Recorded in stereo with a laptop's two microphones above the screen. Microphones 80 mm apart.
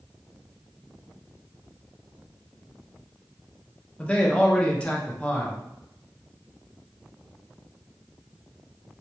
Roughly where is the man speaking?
Centre.